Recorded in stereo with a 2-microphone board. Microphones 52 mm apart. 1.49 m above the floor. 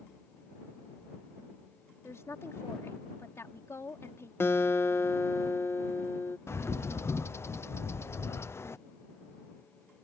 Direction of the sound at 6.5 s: 60° left (ahead or behind).